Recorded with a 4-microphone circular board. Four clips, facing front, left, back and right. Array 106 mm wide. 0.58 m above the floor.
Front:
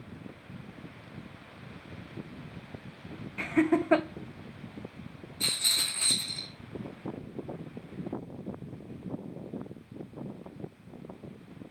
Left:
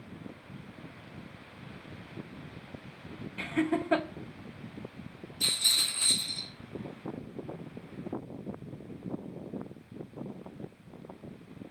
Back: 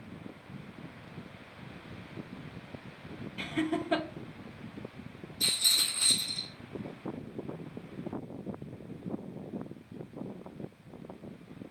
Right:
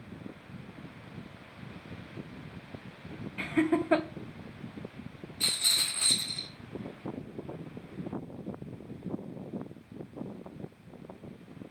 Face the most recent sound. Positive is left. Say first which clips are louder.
# even, even
turn(degrees=-45)